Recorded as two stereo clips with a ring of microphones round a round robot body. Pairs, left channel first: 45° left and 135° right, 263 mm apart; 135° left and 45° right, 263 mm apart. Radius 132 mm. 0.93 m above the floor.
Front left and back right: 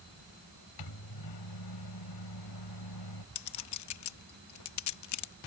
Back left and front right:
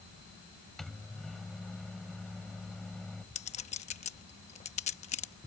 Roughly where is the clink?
Left.